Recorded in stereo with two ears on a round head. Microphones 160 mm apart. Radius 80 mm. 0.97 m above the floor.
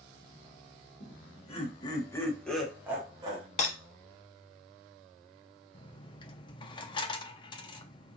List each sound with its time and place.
1.0 s laughter: 45° left (ahead or behind), 1.1 m; by 3.5 s 30° right (ahead or behind), 0.9 m
3.6 s breaking glass: 40° left (ahead or behind), 1.2 m
5.7 s a dropped coin: 25° left (ahead or behind), 0.5 m